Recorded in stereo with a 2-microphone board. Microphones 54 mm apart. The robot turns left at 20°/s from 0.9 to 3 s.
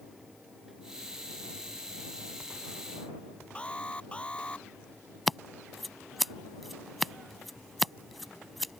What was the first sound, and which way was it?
An alarm, 20° left (ahead or behind).